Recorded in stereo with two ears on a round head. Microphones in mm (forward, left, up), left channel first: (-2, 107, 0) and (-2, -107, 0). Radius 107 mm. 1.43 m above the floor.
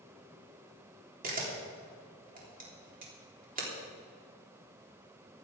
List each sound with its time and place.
1.2 s a camera shutter: 40° right (ahead or behind), 3 m